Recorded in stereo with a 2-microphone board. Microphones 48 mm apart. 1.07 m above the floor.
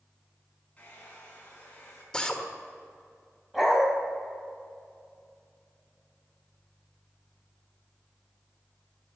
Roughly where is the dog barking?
Centre.